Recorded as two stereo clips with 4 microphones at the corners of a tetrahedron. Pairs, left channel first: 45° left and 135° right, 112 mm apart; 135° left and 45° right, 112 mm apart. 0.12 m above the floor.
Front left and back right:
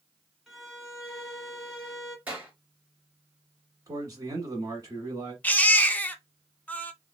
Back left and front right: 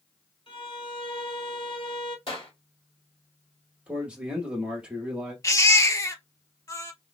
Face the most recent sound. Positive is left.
turn(degrees=110)